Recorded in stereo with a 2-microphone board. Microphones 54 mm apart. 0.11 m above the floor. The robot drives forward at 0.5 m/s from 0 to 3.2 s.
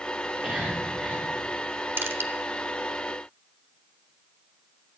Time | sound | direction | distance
0.2 | whispering | 20° right (ahead or behind) | 5.5 m
2.0 | crushing | 50° right (ahead or behind) | 1.1 m